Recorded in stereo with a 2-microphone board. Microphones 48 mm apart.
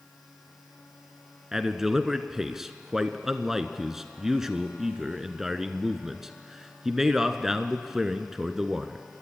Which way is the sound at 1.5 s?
10° right (ahead or behind).